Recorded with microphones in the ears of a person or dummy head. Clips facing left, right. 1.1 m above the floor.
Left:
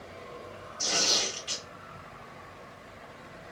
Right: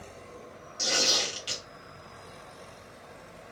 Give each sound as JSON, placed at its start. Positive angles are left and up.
{"t": 0.8, "sound": "tearing paper", "side_deg": -50, "distance_m": 1.5}